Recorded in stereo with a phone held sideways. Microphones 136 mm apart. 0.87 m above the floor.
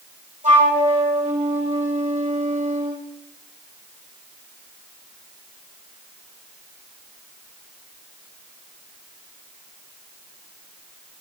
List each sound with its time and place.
0.4 s a flute: 65° right (ahead or behind), 5 m